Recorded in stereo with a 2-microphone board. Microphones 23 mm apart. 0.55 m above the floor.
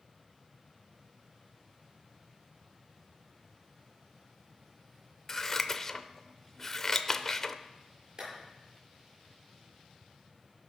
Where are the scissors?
20° left (ahead or behind), 0.6 m.